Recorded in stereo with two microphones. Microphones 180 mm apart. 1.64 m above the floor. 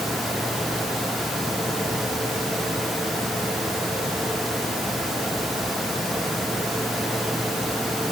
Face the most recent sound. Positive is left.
No sound to turn to.